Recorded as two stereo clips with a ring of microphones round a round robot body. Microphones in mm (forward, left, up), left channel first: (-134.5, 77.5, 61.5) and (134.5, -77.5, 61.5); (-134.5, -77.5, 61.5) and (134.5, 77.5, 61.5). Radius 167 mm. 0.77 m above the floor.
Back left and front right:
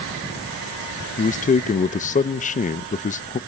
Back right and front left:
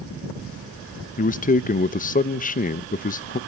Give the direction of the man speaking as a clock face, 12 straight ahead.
6 o'clock.